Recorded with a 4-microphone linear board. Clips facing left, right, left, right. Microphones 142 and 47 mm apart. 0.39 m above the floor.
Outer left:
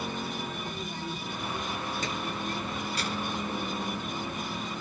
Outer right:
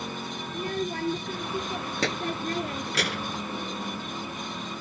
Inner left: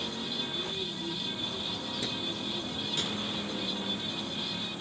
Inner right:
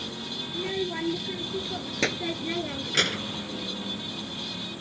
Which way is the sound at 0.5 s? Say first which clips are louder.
Outer right 7 dB, inner right 6 dB; 85° right.